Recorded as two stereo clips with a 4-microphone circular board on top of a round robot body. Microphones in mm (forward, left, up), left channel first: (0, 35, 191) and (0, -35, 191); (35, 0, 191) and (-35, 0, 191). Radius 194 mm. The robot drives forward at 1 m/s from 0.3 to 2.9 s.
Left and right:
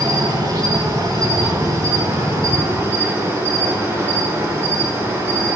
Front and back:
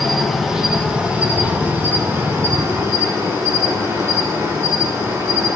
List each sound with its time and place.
0.0 s an insect: 95° right, 3 m; by 5.6 s 135° right, 4 m